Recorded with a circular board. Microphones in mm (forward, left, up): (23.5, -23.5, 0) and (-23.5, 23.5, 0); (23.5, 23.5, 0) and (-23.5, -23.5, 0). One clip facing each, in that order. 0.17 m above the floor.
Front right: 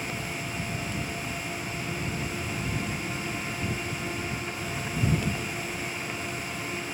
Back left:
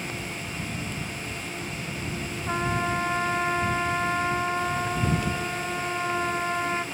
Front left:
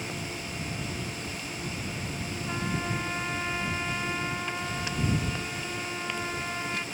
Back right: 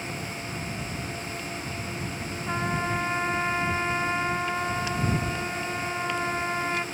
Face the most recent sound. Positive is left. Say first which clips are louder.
# back left 6 dB, back right 5 dB
turn(degrees=160)